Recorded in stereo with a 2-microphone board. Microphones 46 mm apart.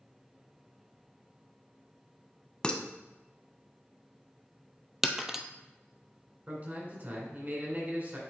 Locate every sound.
2.6 s dishes clattering: 20° left (ahead or behind), 0.7 m
5.0 s breaking glass: 5° right (ahead or behind), 0.6 m
6.5 s a man speaking: 40° right (ahead or behind), 2 m